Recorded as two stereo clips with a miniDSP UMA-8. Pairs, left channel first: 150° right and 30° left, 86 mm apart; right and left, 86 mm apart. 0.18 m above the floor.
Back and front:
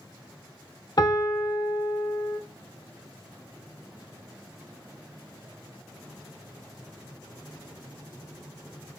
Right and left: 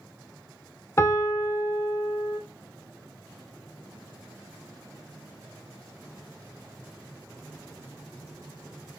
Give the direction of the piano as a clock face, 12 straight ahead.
4 o'clock.